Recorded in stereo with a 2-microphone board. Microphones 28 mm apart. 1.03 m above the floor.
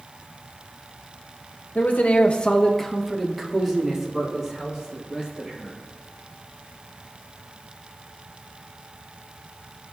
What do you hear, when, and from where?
1.8 s a man speaking: 80° left, 1.0 m; by 5.8 s 25° right (ahead or behind), 4.5 m